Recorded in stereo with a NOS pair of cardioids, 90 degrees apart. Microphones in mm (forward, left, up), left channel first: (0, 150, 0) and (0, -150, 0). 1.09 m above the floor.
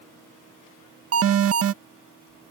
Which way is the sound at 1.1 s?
45° right.